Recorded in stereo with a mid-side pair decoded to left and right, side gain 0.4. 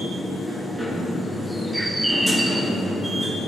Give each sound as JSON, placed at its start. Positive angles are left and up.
{"t": 0.0, "sound": "a machine running", "azimuth_deg": -5, "distance_m": 2.5}
{"t": 1.7, "sound": "a bird", "azimuth_deg": -10, "distance_m": 0.8}